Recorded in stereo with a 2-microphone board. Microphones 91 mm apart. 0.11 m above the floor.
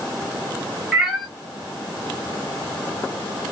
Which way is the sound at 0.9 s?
5° right (ahead or behind).